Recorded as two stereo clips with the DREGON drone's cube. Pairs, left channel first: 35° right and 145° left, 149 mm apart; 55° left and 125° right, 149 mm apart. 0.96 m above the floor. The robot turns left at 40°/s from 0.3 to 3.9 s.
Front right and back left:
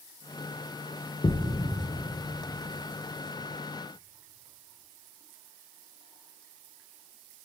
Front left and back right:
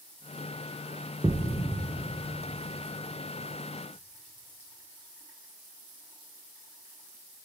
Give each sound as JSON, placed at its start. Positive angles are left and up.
{"t": 1.2, "sound": "a thud", "azimuth_deg": -60, "distance_m": 0.6}